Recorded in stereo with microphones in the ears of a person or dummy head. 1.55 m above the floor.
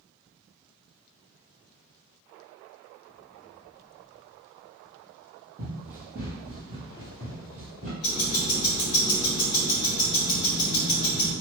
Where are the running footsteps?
10° right (ahead or behind), 1.8 m.